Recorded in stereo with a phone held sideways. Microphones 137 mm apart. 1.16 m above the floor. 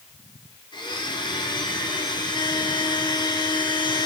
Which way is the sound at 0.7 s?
35° left (ahead or behind).